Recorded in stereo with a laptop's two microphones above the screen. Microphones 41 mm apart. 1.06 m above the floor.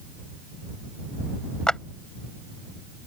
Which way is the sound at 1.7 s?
20° left (ahead or behind).